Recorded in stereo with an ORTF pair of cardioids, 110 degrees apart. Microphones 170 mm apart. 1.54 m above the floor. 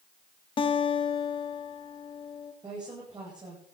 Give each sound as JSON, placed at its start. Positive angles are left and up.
{"t": 0.6, "sound": "a guitar", "azimuth_deg": 30, "distance_m": 1.9}
{"t": 2.6, "sound": "a woman speaking", "azimuth_deg": -25, "distance_m": 9.5}